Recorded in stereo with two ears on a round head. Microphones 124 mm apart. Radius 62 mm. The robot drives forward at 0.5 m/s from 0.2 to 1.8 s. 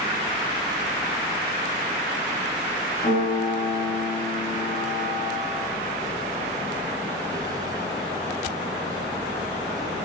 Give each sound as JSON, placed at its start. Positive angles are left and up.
{"t": 3.0, "sound": "a piano", "side_deg": 50, "distance_m": 2.0}